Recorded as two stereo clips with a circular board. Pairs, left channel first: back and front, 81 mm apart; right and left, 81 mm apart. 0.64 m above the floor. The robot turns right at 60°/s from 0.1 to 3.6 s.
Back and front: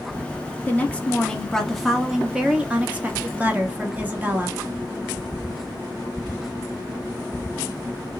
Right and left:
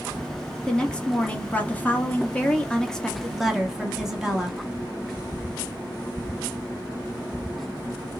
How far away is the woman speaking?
About 1.0 m.